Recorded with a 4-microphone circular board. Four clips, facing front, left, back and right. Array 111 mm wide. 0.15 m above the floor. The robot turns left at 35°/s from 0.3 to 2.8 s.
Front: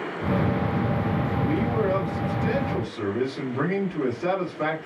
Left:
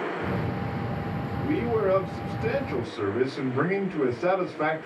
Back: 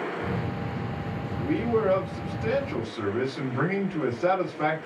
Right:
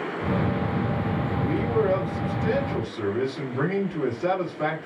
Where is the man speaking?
165° left, 1.8 m; by 4.9 s 115° left, 1.8 m.